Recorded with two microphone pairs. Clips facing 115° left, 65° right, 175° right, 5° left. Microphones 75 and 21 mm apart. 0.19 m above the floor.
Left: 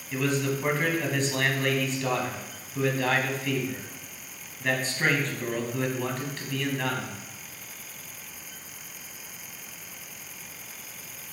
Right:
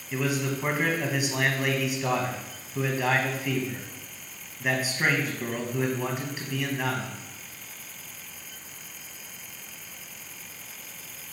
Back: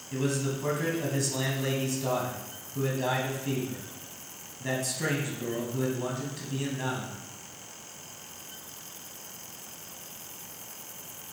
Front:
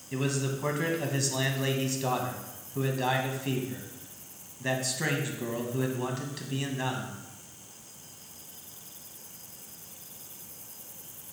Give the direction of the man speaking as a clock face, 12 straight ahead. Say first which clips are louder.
Left 1 dB, back 1 dB; 12 o'clock.